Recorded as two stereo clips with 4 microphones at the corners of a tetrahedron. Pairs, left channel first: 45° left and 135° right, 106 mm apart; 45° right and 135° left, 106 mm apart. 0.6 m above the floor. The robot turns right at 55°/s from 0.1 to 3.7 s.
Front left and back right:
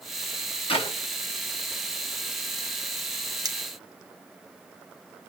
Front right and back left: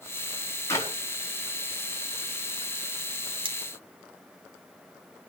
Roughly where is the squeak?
I don't hear a squeak.